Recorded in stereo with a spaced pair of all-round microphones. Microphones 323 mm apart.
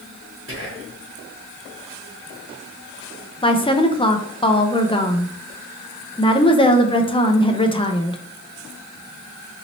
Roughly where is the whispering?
Right.